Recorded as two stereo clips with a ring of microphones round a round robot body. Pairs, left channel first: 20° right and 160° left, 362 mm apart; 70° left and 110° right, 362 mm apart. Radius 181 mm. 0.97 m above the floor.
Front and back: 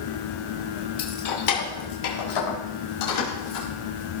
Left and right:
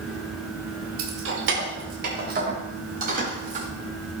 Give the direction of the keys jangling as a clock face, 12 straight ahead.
2 o'clock.